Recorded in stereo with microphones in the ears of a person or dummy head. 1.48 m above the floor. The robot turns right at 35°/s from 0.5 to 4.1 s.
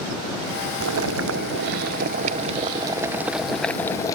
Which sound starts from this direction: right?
Boiling, at 0.8 s.